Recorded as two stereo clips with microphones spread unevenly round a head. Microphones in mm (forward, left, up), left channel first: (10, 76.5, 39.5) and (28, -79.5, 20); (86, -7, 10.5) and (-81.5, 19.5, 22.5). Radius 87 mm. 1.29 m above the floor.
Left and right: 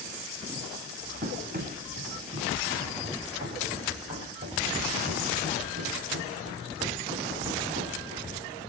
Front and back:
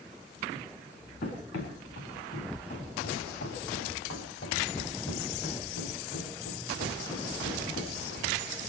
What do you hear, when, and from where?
1.2 s running footsteps: 45° right, 7.5 m; by 8.3 s 20° right, 9.5 m